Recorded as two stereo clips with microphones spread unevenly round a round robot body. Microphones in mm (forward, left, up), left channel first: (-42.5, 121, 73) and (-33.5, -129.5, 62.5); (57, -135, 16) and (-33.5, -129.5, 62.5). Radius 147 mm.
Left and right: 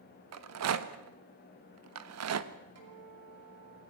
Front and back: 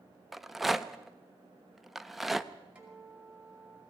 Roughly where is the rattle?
Right.